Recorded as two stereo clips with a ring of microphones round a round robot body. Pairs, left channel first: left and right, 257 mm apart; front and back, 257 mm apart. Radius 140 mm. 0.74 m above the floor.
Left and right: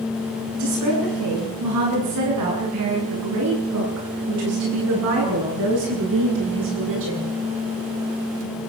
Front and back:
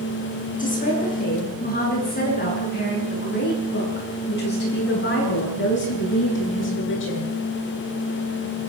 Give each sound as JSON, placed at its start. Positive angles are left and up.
{"t": 0.6, "sound": "a woman speaking", "azimuth_deg": -60, "distance_m": 9.5}